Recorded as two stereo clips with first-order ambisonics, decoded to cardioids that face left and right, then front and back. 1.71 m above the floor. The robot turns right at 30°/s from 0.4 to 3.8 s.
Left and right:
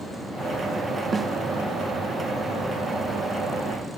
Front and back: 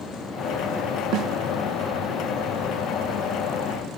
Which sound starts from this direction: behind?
A snare drum, at 1.1 s.